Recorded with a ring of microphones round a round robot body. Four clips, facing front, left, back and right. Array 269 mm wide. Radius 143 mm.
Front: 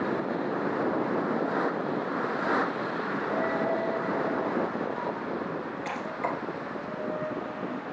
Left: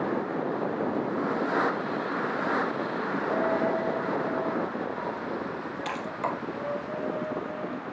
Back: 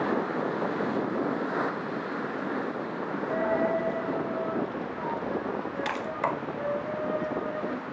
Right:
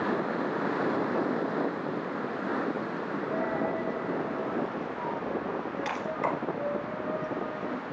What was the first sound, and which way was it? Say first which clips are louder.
A dropped coin: left 4 dB, back 3 dB; 170° left.